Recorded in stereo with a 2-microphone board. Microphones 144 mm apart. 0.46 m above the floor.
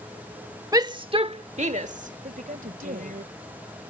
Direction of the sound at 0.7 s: 25° right (ahead or behind).